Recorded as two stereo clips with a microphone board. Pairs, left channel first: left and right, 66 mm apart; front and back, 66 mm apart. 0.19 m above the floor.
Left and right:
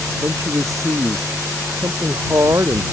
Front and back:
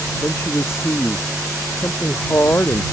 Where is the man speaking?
50° right.